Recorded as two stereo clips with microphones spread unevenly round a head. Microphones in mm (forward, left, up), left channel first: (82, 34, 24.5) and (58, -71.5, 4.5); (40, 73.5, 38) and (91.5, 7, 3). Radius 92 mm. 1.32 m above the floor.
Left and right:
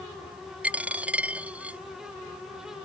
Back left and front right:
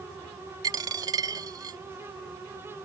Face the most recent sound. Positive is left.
turn(degrees=-15)